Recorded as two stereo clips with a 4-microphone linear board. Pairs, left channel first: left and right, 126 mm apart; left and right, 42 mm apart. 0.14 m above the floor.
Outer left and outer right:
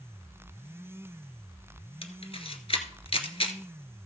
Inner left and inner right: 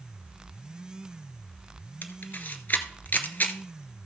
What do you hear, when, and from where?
2.0 s a camera shutter: 50° left (ahead or behind), 1.2 m